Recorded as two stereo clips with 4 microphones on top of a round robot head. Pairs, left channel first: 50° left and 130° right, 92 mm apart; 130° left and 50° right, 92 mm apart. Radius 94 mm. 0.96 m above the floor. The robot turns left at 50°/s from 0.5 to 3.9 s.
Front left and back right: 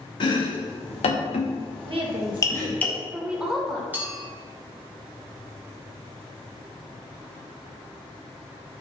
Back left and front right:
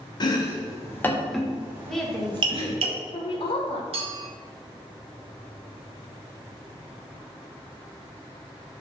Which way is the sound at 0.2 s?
90° left.